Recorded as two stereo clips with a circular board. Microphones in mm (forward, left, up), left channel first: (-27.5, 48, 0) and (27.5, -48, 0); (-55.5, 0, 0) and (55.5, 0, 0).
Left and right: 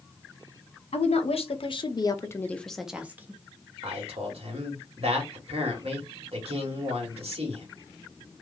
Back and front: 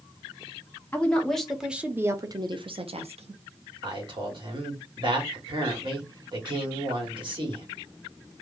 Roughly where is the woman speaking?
Left.